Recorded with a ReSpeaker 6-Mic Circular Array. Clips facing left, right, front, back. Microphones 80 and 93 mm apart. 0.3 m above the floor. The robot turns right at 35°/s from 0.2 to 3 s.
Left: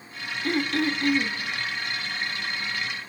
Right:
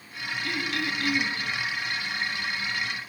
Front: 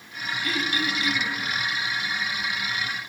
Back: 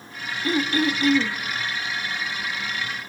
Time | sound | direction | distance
0.4 | throat clearing | 125° left | 1.3 m